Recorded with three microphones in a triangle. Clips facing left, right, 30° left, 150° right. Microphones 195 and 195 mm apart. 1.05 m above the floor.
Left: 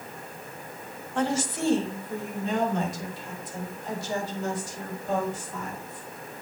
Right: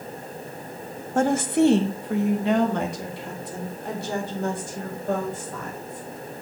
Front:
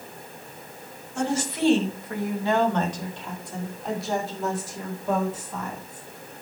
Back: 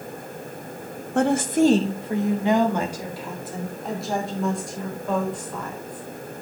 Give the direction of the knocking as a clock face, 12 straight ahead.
I don't hear knocking.